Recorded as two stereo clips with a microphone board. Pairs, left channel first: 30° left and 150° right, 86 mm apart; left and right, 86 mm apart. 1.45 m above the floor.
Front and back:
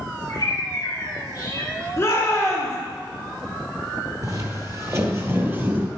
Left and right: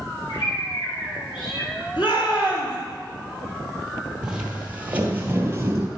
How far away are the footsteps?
About 1.9 m.